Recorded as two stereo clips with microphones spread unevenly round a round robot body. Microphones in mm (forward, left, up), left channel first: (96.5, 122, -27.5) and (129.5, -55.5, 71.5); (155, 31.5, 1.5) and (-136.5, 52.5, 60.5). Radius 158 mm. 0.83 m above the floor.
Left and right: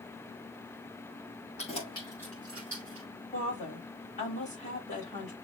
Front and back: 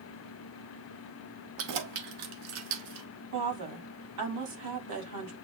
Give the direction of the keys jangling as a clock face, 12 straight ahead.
7 o'clock.